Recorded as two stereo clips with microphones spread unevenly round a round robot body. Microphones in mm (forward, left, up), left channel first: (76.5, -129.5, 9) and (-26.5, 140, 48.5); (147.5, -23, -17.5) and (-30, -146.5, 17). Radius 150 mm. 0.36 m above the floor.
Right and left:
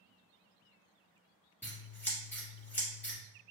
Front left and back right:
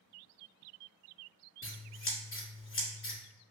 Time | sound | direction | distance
1.6 | scissors | 15° left | 1.5 m